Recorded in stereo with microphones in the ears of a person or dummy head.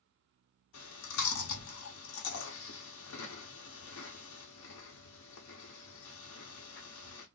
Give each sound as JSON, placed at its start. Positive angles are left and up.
{"t": 0.7, "sound": "chewing", "side_deg": 75, "distance_m": 0.9}